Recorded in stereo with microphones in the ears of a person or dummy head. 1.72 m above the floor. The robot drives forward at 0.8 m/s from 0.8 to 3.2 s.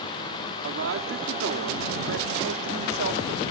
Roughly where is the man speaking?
Right.